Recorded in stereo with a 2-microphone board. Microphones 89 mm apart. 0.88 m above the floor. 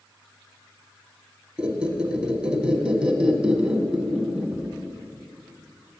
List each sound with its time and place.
1.6 s a squeak: 10° right (ahead or behind), 0.8 m